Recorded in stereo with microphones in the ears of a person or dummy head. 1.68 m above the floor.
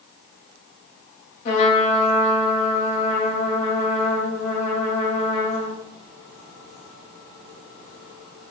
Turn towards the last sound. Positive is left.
turn(degrees=45)  # may be behind; listen again after turning